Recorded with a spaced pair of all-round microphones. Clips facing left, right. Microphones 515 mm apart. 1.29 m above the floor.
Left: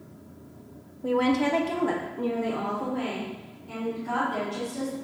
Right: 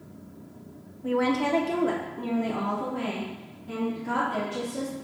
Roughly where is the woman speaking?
Left.